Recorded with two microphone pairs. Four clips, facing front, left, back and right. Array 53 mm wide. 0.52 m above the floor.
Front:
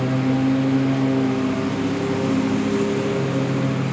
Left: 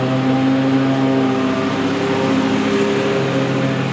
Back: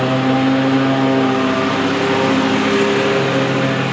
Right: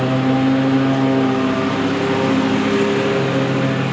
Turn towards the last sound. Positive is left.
turn(degrees=-175)